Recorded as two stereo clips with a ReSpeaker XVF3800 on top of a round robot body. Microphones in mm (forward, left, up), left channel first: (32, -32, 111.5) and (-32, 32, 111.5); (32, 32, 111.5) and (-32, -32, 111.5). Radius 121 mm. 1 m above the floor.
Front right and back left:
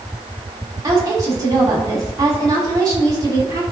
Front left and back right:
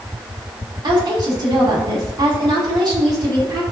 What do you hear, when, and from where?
0.8 s a woman speaking: 175° right, 3 m